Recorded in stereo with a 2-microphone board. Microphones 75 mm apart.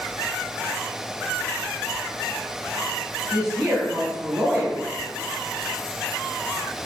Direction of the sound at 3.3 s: 5° right (ahead or behind).